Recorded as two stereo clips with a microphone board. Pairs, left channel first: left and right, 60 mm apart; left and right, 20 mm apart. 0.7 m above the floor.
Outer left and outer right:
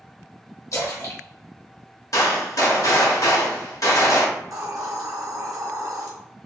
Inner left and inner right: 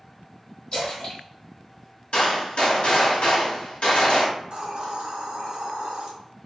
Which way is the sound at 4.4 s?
70° right (ahead or behind).